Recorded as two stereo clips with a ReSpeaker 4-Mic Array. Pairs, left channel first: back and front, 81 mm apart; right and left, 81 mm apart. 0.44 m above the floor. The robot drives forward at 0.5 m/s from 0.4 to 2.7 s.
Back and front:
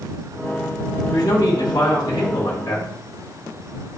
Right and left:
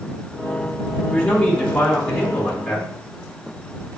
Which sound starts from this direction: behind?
A man speaking, at 1.1 s.